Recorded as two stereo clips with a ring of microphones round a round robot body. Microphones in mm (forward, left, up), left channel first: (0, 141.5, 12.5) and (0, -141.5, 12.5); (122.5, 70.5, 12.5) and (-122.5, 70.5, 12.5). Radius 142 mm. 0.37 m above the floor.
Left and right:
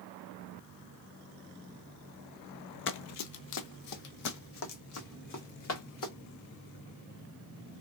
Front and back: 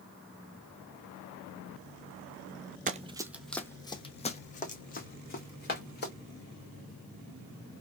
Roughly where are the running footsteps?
Behind left.